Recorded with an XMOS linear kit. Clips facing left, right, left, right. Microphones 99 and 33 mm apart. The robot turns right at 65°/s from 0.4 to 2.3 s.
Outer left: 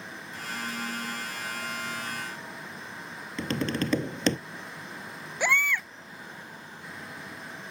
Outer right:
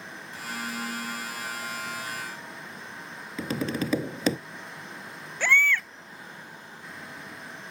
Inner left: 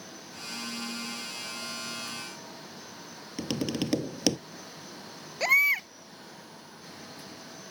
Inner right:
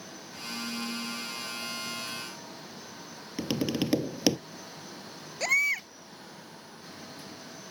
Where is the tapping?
5° right (ahead or behind).